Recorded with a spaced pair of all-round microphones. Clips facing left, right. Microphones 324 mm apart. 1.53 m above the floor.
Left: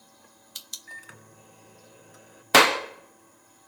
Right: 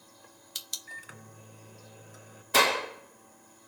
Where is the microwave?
Centre (ahead or behind), 0.8 m.